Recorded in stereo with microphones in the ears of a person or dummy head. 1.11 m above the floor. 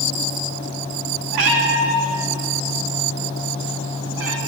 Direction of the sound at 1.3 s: 75° right (ahead or behind).